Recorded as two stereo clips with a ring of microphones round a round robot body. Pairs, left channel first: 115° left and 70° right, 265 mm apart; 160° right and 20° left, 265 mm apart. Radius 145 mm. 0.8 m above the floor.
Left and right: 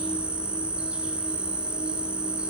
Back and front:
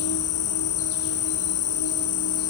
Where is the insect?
155° right, 1.1 m.